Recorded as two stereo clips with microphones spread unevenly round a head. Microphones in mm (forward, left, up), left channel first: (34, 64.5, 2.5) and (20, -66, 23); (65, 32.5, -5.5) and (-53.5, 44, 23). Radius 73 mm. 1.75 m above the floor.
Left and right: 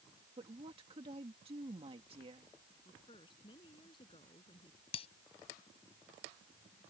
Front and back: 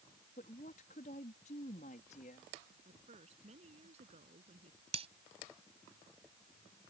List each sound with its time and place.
0.4 s a woman speaking: 50° right
2.9 s a woman speaking: 145° left
4.9 s breaking glass: 140° left